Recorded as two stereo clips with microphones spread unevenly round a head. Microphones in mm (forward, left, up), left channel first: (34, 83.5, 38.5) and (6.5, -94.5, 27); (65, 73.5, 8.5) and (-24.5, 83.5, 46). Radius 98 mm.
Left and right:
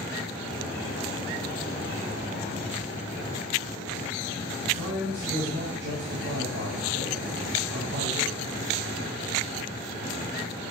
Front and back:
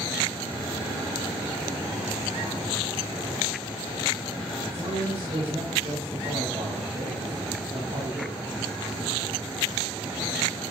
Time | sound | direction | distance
4.7 | a man speaking | 120° right | 6.5 m